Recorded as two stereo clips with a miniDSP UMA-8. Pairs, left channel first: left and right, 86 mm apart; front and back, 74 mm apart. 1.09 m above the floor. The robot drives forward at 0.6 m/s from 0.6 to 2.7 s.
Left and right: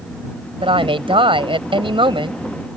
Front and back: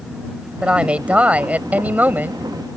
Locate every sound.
0.6 s a woman speaking: 105° right; by 2.4 s 115° right